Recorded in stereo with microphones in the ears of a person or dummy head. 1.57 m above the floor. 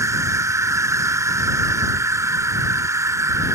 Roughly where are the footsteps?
I don't hear footsteps.